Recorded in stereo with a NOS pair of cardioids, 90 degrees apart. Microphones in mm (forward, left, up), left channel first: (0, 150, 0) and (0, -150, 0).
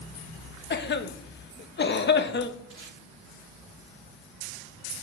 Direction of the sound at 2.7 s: 40° right.